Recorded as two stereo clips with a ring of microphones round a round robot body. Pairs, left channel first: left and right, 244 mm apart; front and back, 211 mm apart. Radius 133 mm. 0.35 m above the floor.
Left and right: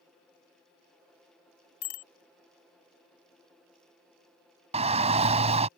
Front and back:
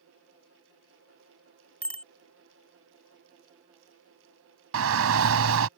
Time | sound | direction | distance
1.8 | a bicycle bell | 85° left | ?
4.7 | a shout | 155° right | ?